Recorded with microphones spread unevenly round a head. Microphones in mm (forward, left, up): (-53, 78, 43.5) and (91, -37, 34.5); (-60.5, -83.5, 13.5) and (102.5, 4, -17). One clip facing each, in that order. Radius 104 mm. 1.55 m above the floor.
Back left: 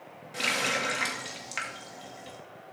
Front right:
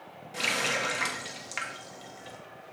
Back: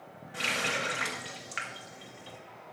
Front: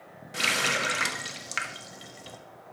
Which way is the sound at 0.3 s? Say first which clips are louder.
Even, front 3 dB; 55° left.